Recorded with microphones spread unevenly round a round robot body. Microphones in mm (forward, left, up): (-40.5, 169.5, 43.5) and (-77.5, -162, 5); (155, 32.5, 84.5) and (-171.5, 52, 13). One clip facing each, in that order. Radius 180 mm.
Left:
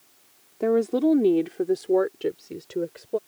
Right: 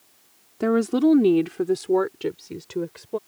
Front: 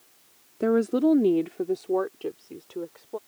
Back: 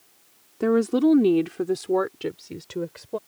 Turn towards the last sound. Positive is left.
turn(degrees=-165)